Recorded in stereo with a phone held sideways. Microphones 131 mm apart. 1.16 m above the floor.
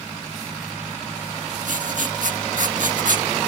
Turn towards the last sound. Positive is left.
turn(degrees=-70)  # may be behind; listen again after turning